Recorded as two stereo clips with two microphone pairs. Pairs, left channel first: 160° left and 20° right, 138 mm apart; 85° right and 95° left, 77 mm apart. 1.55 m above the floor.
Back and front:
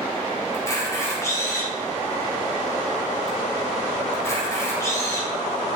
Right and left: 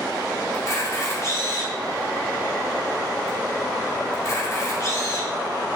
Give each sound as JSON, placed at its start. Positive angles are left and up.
{"t": 0.5, "sound": "a camera shutter", "azimuth_deg": -130, "distance_m": 4.0}